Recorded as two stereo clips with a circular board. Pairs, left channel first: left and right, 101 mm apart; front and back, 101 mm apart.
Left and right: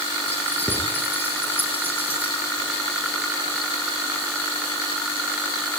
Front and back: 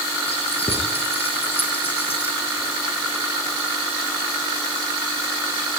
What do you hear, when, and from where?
0.3 s keys jangling: 20° left, 10 m